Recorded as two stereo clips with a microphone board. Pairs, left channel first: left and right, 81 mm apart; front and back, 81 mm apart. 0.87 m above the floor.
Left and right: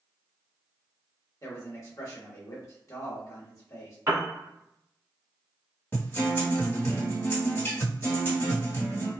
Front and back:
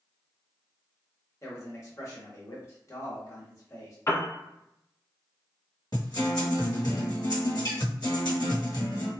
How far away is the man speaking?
About 1.1 m.